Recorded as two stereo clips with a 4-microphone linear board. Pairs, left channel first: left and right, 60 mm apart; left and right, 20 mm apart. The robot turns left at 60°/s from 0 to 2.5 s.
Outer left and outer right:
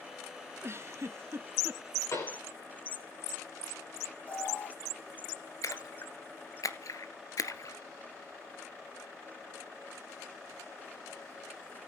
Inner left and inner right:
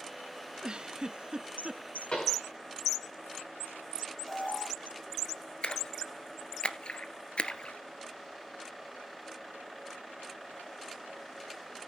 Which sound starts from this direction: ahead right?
A giggle, at 0.6 s.